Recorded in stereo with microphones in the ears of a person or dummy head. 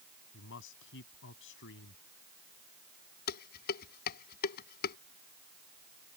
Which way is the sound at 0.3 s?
70° left (ahead or behind).